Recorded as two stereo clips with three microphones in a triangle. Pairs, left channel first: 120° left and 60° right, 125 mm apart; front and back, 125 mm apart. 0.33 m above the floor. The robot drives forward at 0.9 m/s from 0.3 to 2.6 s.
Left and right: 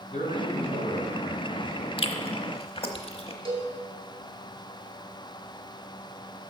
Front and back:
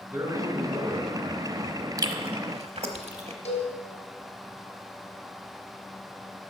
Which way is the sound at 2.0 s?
130° left.